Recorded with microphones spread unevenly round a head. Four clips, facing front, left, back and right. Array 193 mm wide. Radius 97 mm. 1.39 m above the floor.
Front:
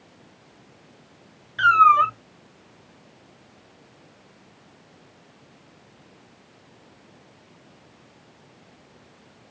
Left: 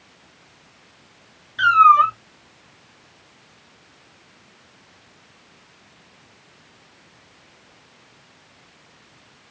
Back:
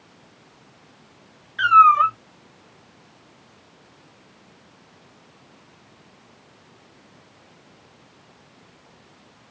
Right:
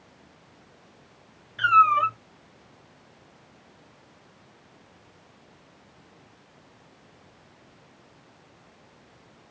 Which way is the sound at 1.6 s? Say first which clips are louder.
Left 6 dB, back 2 dB; 10° right.